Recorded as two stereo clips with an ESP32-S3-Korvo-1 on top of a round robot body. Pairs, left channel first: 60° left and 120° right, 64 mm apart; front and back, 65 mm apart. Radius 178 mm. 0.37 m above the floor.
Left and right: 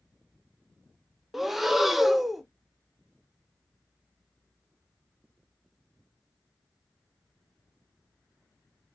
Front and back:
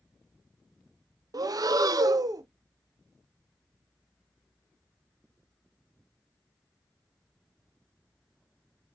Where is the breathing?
150° left, 0.5 m.